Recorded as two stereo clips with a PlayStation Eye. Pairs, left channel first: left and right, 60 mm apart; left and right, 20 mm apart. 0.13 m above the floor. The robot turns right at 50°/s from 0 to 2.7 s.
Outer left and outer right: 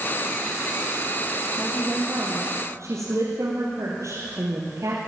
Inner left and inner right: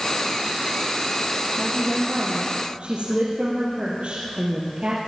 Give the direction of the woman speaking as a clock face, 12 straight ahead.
6 o'clock.